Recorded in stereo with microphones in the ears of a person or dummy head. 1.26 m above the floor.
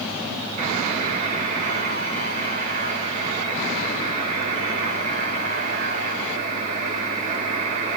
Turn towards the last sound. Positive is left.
turn(degrees=-45)  # may be behind; listen again after turning